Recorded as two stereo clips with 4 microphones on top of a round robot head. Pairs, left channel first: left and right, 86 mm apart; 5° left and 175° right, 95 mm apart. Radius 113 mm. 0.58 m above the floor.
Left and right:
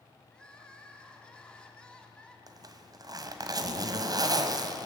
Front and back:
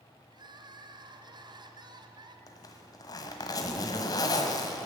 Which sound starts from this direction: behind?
Crying, at 0.3 s.